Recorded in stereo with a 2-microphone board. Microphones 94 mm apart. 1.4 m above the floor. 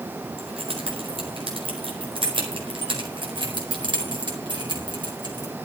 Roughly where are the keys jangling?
Right.